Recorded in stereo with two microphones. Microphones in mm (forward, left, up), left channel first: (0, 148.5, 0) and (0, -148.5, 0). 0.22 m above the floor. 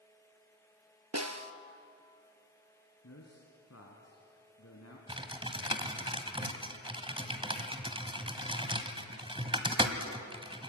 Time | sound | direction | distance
1.1 | a snare drum | 60° right (ahead or behind) | 1.3 m
3.0 | a man speaking | 55° left (ahead or behind) | 3 m
5.1 | typing on a keyboard | 15° right (ahead or behind) | 1.5 m